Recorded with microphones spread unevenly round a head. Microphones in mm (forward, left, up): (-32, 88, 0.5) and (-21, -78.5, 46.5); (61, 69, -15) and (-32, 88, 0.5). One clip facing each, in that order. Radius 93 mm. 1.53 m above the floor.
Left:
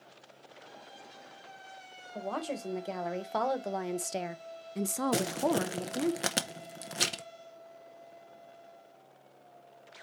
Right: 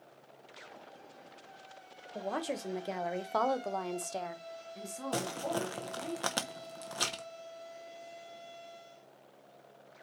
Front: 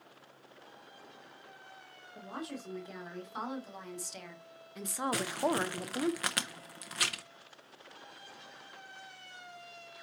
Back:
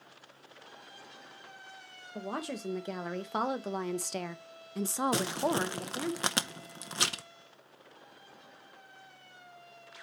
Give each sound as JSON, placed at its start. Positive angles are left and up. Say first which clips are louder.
{"t": 2.1, "sound": "a woman speaking", "louder": "even, back 5 dB", "azimuth_deg": -160, "distance_m": 1.5}
{"t": 5.1, "sound": "crumpling", "louder": "left 4 dB, front 2 dB", "azimuth_deg": 170, "distance_m": 0.6}